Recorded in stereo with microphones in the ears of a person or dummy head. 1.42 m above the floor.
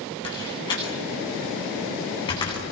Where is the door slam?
20° left (ahead or behind), 9 m.